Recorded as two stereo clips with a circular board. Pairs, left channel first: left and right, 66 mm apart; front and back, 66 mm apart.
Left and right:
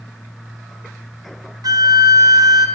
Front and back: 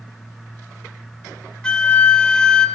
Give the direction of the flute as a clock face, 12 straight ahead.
3 o'clock.